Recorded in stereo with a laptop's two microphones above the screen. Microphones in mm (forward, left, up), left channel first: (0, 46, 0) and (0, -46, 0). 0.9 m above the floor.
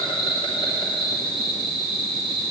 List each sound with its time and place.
0.0 s an insect: 60° left (ahead or behind), 2 m